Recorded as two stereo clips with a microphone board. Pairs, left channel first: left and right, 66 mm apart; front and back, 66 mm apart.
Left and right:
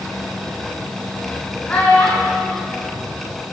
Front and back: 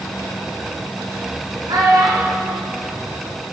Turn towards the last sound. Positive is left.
turn(degrees=160)